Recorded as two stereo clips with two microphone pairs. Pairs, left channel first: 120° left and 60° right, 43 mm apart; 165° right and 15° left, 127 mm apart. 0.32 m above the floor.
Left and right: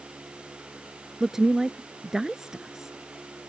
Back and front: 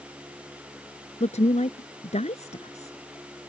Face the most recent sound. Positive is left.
turn(degrees=-135)